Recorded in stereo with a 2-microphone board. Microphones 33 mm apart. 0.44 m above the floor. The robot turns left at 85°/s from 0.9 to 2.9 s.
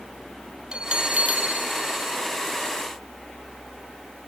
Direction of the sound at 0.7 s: 40° right.